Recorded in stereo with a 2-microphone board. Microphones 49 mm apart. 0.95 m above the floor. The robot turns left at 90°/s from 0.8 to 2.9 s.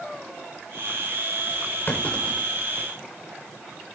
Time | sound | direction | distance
1.9 | a clunk | 45° left (ahead or behind) | 4 m